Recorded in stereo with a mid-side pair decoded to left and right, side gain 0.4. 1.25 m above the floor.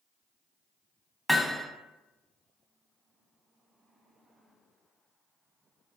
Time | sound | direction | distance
1.3 | hammering | 10° left | 0.7 m